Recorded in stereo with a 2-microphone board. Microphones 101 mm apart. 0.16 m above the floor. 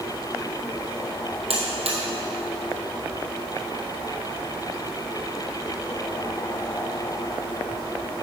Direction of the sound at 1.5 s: 80° right.